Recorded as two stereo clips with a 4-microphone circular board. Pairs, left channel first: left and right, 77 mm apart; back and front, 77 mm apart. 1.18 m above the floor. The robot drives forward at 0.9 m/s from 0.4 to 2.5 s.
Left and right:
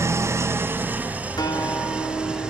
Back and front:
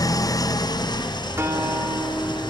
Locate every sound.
0.0 s an engine running: 145° right, 0.9 m; by 2.5 s 170° right, 2.5 m
1.4 s a guitar: 55° left, 3.5 m; by 2.5 s 70° left, 3 m